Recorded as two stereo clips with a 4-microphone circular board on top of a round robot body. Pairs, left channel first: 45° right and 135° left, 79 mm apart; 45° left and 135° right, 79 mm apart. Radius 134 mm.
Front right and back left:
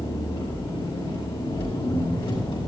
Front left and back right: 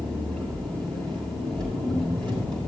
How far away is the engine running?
About 8.5 m.